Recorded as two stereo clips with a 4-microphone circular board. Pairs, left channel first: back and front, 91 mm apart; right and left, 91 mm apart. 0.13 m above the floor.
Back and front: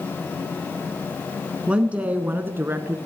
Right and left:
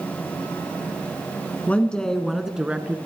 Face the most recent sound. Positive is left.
turn(degrees=30)